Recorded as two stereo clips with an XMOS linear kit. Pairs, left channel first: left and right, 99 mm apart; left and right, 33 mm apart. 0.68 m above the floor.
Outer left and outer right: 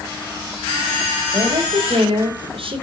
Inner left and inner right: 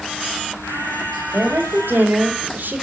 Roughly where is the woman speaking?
Right.